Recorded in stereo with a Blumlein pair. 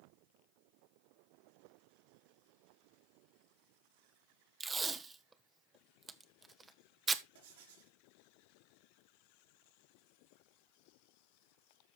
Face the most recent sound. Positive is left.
turn(degrees=-60)